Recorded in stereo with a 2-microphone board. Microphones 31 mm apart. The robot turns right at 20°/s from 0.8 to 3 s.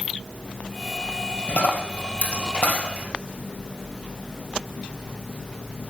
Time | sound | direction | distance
1.5 | a dropped coin | 80° left | 3 m